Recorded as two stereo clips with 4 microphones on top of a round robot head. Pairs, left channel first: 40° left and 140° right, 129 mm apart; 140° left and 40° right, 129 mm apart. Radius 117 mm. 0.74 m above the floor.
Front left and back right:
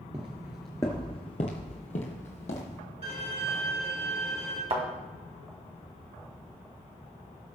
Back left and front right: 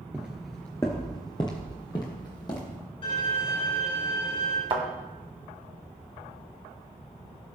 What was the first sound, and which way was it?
Footsteps, 110° right.